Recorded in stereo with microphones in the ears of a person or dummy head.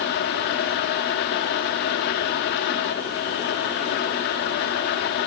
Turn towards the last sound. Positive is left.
turn(degrees=55)  # may be behind; listen again after turning